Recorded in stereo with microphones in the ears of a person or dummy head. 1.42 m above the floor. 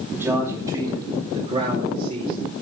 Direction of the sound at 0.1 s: 5° right (ahead or behind).